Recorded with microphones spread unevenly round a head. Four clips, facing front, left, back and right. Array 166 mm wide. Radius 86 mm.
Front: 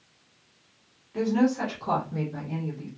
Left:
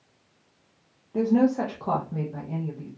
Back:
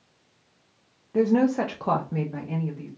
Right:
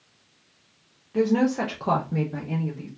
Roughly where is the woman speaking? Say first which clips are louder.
Even, back 3 dB; behind.